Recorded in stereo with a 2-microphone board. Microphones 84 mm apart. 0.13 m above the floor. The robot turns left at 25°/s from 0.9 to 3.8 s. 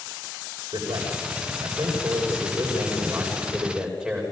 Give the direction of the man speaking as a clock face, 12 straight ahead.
3 o'clock.